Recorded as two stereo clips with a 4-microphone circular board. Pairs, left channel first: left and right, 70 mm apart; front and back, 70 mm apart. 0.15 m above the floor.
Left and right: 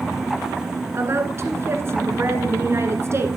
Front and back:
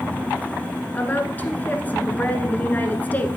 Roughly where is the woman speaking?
Ahead right.